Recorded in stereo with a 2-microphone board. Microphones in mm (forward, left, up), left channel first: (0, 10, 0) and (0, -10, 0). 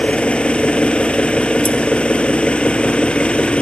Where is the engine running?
75° left (ahead or behind), 2 m.